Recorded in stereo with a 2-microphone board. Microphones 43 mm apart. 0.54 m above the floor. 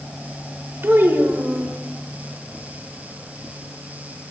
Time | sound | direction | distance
0.8 | a child speaking | 65° right (ahead or behind) | 1.6 m